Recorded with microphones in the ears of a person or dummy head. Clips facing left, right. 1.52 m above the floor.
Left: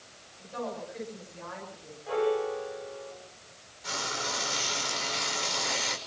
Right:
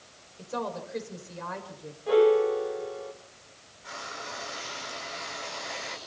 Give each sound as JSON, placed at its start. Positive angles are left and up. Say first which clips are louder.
{"t": 0.4, "sound": "a woman speaking", "louder": "right 2 dB", "side_deg": -85, "distance_m": 6.5}
{"t": 2.1, "sound": "a piano", "louder": "right 8 dB", "side_deg": -45, "distance_m": 2.5}
{"t": 3.8, "sound": "frying", "louder": "left 5 dB", "side_deg": 65, "distance_m": 5.5}